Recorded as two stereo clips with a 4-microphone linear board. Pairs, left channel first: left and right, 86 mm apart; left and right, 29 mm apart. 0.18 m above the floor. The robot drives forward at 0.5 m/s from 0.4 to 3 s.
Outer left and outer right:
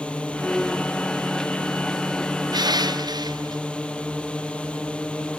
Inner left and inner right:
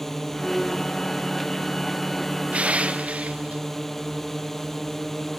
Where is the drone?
15° left (ahead or behind).